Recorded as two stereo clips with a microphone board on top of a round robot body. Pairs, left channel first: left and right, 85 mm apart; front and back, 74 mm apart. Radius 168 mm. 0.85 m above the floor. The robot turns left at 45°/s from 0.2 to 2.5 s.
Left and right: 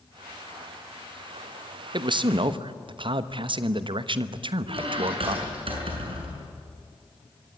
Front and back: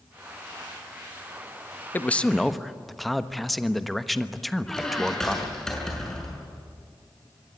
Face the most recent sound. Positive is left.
turn(degrees=-85)